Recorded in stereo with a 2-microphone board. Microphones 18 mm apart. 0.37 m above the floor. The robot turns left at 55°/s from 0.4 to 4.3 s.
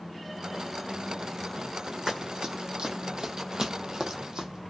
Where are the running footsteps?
65° right (ahead or behind), 1.1 m; by 4.7 s 60° right (ahead or behind), 1.0 m.